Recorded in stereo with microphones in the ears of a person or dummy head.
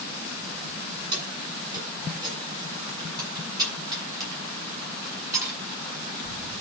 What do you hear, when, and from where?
1.1 s keys jangling: 30° right (ahead or behind), 9 m; by 5.6 s 15° right (ahead or behind), 9.5 m